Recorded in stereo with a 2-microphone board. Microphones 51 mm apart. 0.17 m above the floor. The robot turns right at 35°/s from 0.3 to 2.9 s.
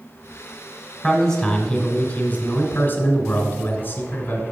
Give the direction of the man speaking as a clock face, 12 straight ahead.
12 o'clock.